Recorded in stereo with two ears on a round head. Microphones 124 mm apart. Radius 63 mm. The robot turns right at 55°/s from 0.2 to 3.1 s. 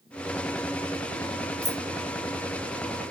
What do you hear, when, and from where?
1.6 s keys jangling: centre (ahead or behind), 0.5 m; by 1.8 s 5° left (ahead or behind), 0.5 m